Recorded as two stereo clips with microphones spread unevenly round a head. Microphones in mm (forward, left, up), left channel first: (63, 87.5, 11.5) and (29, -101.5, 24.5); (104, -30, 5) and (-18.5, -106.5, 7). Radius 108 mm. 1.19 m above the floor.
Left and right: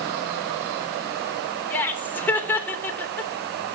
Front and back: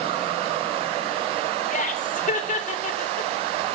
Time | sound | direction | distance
1.7 | laughter | straight ahead | 3.5 m